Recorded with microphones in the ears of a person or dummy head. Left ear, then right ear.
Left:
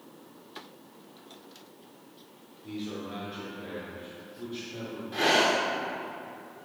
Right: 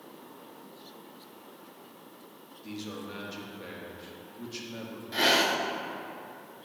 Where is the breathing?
20° right (ahead or behind), 0.5 m.